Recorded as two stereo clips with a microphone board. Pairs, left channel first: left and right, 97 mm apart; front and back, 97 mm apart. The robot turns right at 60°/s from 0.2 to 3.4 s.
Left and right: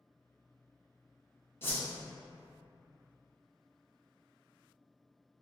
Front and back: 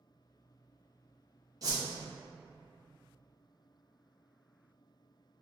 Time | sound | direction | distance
1.6 | a whoosh | 145° left | 0.6 m